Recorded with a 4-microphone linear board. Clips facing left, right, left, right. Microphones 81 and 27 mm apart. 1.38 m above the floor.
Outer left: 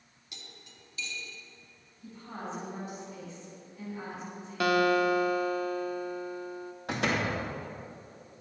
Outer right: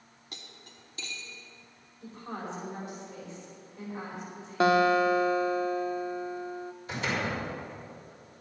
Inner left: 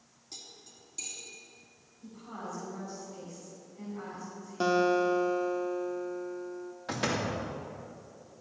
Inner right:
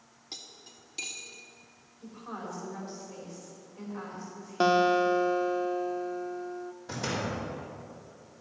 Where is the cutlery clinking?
40° right (ahead or behind), 1.5 m.